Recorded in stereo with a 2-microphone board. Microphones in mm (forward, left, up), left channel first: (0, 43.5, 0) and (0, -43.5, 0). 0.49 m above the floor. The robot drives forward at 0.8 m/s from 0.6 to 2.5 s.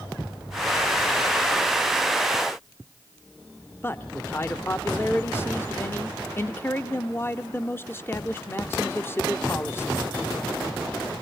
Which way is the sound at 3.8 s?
25° left (ahead or behind).